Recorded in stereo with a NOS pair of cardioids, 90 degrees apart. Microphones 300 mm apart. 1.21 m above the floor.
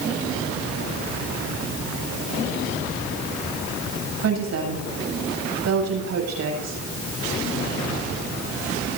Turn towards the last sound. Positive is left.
turn(degrees=-60)